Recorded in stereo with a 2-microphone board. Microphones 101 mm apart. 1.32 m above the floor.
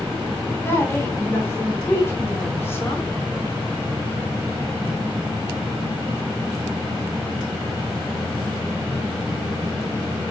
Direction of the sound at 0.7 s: 25° left (ahead or behind).